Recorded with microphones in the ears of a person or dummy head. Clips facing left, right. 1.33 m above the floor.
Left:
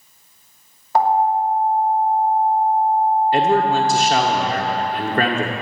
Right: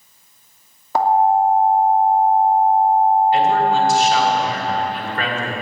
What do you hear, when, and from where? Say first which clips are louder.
0.9 s an alarm: right 2 dB; 85° right, 2.5 m
3.3 s a man speaking: even; 35° left (ahead or behind), 1.4 m